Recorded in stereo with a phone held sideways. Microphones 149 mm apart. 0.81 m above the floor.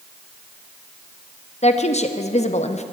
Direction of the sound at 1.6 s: 50° left (ahead or behind).